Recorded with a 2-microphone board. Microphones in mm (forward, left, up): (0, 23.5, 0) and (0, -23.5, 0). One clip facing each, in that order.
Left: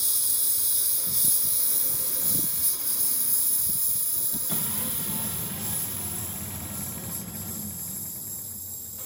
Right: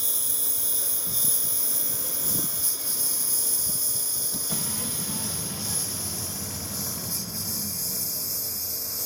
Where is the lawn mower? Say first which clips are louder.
Right 1 dB; 40° right (ahead or behind); by 9.1 s 80° right.